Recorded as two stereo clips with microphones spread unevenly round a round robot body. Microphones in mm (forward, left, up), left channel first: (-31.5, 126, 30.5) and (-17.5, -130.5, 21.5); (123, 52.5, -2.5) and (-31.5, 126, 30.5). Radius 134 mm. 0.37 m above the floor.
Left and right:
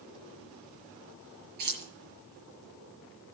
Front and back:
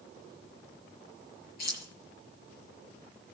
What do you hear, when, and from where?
1.6 s keys jangling: 75° right, 6 m